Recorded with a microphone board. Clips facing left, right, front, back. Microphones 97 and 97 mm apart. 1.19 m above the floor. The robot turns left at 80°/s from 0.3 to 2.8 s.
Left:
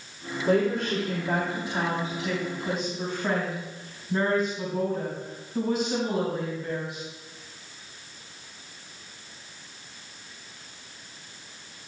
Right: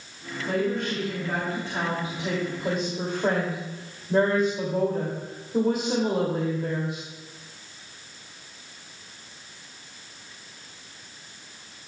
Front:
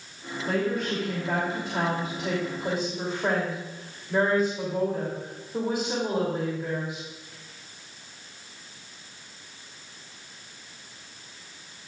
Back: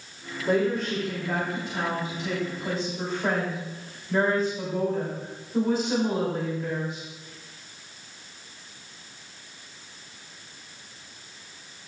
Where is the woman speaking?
115° left, 3 m; by 7.0 s 75° right, 3 m.